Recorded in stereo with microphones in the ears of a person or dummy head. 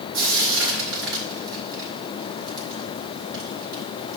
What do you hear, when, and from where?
0.1 s frying: 75° right (ahead or behind), 4 m